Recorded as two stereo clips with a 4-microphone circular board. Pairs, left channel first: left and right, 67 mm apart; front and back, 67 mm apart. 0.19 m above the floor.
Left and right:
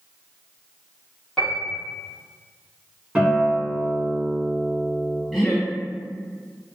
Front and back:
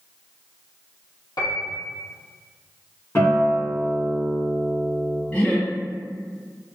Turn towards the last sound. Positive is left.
turn(degrees=10)